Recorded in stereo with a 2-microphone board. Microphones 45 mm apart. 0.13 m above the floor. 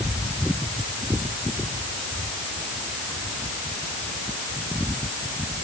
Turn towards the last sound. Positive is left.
No sound to turn to.